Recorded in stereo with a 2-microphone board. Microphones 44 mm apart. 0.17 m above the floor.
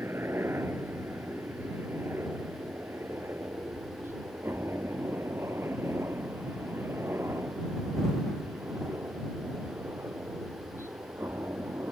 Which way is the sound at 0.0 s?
65° right (ahead or behind).